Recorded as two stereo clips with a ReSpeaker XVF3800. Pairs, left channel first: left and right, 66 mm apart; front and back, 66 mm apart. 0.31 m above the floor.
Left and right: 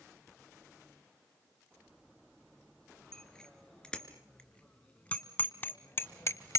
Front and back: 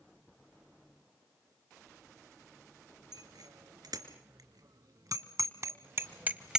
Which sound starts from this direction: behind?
A bicycle bell, at 3.1 s.